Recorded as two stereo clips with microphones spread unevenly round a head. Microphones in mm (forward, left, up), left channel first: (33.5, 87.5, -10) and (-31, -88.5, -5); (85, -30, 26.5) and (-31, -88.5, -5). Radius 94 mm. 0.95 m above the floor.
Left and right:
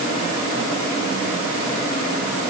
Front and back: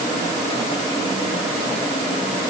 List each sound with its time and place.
Only background noise.